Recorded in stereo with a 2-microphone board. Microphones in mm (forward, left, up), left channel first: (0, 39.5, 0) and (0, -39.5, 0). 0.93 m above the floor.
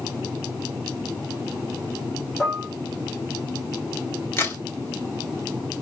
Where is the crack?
30° left (ahead or behind), 1.6 m.